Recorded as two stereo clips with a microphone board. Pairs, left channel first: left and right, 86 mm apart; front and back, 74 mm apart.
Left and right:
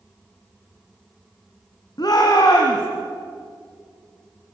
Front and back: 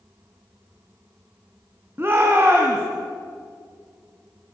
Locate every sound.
2.0 s a shout: 125° left, 3 m